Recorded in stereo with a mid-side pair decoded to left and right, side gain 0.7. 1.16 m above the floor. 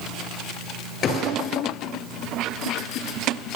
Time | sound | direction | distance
1.0 | a gunshot | 40° left | 7.5 m